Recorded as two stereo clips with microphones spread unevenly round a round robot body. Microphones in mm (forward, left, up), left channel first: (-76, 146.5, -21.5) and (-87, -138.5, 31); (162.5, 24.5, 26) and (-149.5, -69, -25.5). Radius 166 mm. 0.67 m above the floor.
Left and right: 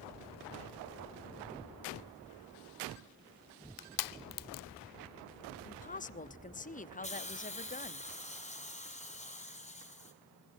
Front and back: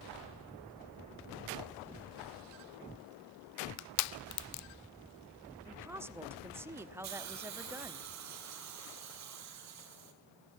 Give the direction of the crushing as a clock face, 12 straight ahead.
10 o'clock.